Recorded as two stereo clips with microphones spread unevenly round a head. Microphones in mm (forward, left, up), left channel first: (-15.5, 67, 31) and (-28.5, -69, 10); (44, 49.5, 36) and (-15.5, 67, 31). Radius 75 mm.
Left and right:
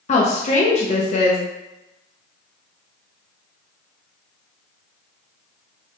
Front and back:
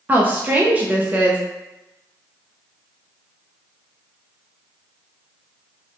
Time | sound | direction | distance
0.1 | a woman speaking | 110° left | 0.5 m